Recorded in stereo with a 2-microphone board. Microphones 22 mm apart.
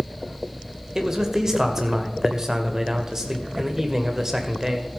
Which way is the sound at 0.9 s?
20° right (ahead or behind).